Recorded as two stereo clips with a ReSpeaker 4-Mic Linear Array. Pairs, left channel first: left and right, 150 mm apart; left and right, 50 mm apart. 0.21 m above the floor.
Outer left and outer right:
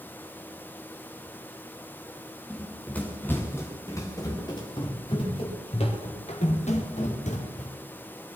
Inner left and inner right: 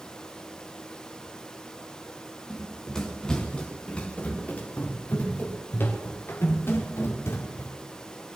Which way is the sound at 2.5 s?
5° left (ahead or behind).